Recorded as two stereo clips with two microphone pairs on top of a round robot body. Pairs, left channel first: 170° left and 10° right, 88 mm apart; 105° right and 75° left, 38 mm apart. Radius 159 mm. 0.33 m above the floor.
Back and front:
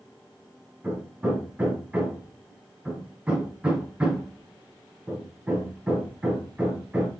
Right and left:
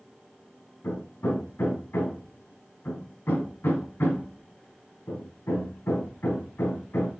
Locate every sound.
0.8 s hammering: 90° right, 4.5 m